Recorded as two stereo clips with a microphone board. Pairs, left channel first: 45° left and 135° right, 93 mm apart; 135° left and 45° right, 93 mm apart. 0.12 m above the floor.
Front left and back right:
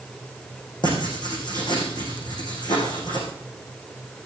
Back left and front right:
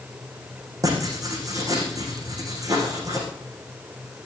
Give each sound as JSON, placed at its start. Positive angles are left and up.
{"t": 0.8, "sound": "writing", "azimuth_deg": 5, "distance_m": 6.5}